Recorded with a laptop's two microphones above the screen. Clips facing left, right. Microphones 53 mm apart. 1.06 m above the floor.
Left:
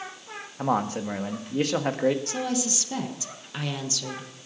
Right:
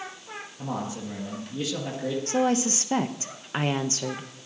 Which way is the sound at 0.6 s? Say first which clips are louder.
Left 7 dB; 55° left (ahead or behind).